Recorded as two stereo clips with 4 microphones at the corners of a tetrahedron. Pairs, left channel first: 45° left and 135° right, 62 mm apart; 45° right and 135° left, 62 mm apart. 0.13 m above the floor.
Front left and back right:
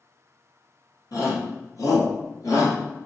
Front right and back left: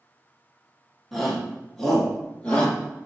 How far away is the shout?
About 4 m.